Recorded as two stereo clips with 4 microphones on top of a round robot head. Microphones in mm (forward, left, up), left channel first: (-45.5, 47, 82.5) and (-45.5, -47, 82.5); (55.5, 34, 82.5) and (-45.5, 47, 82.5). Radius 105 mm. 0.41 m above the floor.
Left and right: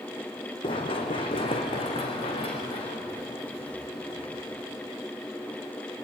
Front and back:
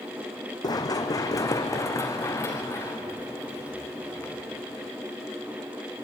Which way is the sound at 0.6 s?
45° left.